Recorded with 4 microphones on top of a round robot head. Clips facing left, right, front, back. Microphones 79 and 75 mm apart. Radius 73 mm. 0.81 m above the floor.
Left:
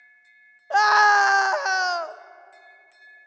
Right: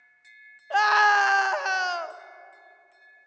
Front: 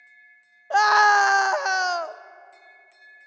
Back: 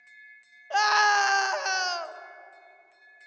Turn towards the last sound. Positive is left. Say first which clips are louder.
# left 3 dB, front 5 dB
turn(degrees=35)